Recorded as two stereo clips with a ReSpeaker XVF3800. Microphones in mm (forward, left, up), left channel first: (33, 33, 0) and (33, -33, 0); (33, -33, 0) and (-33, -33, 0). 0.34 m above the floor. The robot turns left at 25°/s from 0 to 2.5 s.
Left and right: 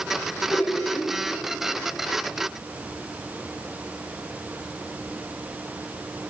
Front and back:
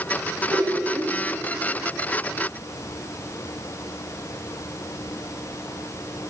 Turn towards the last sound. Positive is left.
turn(degrees=125)